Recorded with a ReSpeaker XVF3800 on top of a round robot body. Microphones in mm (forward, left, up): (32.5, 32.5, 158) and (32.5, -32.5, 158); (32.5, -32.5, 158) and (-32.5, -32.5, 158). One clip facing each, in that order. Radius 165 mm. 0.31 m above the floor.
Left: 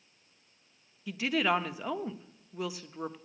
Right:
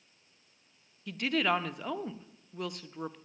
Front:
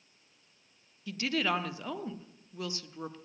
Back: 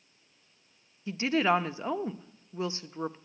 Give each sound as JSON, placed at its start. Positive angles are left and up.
{"t": 1.1, "sound": "a woman speaking", "azimuth_deg": 170, "distance_m": 0.9}